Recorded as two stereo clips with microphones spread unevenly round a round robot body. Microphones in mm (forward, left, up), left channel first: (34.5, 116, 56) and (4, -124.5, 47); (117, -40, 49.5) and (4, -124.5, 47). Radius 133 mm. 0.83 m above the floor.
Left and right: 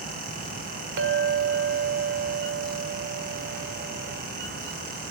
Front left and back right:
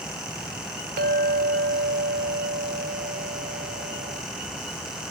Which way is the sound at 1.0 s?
145° right.